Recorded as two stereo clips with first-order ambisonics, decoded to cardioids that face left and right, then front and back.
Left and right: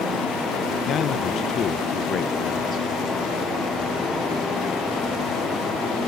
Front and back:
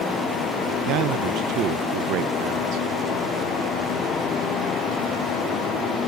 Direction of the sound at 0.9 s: 145° left.